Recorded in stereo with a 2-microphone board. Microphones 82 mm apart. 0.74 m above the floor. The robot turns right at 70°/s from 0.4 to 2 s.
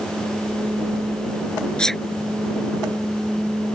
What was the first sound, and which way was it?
A sneeze, 10° left (ahead or behind).